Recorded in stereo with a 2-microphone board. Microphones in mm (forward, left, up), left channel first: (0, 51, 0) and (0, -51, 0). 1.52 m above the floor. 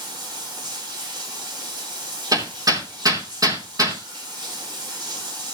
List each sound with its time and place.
0.0 s running water: 45° right (ahead or behind), 6 m
2.3 s hammering: 35° right (ahead or behind), 3 m